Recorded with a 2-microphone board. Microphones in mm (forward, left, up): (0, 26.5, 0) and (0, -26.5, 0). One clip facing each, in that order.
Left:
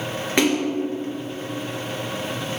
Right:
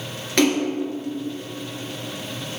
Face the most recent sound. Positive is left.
turn(degrees=15)  # may be behind; listen again after turning